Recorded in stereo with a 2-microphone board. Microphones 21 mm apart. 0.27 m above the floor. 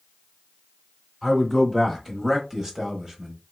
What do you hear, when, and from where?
1.2 s a man speaking: centre (ahead or behind), 1.4 m; by 3.4 s 25° right (ahead or behind), 1.0 m